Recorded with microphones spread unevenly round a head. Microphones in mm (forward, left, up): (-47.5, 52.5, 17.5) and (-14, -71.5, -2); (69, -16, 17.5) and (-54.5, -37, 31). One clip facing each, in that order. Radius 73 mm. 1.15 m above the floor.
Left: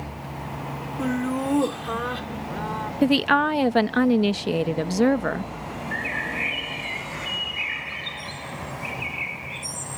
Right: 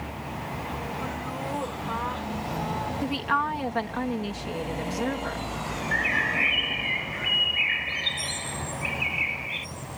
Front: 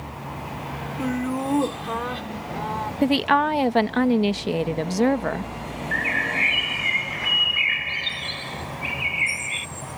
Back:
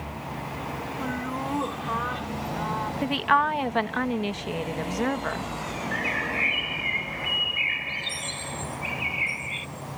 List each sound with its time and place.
1.0 s laughter: 70° left
3.0 s a woman speaking: 70° left
5.9 s a bird: 20° right